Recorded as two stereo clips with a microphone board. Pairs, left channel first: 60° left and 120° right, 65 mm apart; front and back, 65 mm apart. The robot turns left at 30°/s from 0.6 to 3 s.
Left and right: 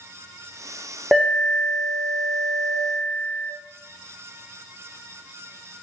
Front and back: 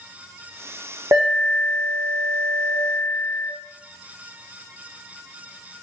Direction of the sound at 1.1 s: 155° left.